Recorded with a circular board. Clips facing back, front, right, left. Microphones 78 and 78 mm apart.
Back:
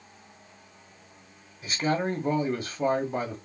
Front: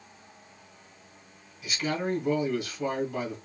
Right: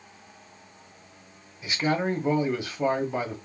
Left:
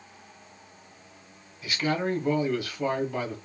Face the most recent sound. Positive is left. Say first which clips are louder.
# back 3 dB, right 2 dB
turn(degrees=-150)